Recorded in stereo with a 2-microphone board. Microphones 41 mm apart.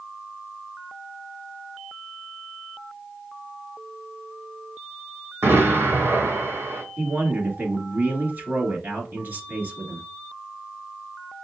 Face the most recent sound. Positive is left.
turn(degrees=-50)  # may be behind; listen again after turning